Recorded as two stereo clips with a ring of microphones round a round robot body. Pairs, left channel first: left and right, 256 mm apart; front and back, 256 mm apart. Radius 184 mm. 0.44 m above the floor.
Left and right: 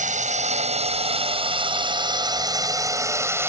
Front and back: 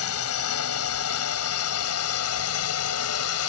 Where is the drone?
30° right; by 3.5 s 10° right.